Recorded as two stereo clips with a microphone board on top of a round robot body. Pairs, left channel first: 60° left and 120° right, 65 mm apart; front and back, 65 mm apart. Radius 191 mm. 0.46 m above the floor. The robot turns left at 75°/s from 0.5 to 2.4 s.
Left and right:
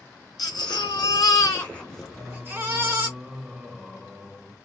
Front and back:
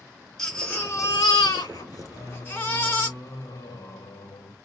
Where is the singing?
15° right, 1.8 m; by 4.5 s 40° right, 1.8 m.